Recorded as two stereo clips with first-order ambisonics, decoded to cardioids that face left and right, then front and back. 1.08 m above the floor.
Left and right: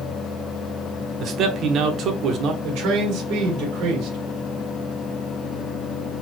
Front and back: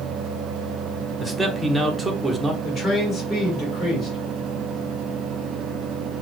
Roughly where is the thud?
I don't hear a thud.